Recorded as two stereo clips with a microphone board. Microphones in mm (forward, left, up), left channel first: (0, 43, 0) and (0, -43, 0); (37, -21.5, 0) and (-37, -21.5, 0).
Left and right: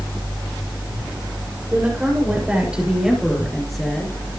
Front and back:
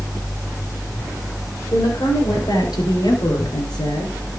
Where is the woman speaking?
20° right, 7 m; by 4.1 s 10° left, 5.5 m.